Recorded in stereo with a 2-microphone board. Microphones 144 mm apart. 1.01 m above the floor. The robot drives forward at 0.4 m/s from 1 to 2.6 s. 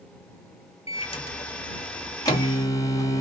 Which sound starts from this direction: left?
A microwave, at 0.9 s.